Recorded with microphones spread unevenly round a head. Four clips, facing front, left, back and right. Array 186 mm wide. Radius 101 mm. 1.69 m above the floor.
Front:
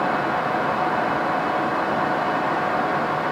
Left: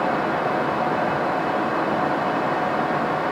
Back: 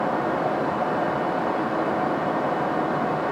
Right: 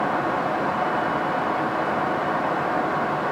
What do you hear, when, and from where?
Only background noise.